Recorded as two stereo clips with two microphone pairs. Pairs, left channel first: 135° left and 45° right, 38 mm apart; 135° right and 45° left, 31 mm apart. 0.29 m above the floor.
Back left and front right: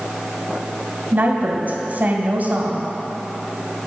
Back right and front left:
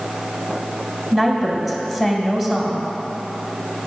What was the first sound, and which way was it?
A woman speaking, 25° right.